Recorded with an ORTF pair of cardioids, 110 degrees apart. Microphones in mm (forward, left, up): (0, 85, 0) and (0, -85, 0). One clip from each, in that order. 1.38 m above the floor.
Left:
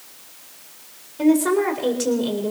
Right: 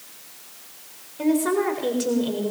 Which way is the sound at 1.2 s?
20° left.